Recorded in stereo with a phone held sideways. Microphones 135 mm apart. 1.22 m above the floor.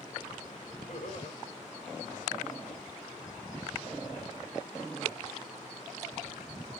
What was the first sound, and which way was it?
Laughter, 60° left (ahead or behind).